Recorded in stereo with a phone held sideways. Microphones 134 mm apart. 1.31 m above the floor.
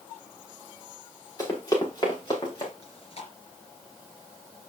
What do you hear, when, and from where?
1.4 s running footsteps: 30° left (ahead or behind), 5.5 m; by 2.7 s 40° left (ahead or behind), 6.5 m
2.8 s chewing: 45° left (ahead or behind), 4 m